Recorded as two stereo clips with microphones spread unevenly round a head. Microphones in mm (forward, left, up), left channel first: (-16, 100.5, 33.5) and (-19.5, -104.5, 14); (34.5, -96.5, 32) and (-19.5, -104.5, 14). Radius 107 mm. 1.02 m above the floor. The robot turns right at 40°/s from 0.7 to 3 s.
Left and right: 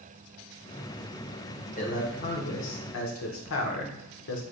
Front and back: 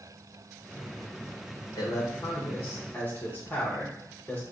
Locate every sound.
1.8 s a man speaking: 35° left, 0.7 m; by 4.4 s 85° left, 0.7 m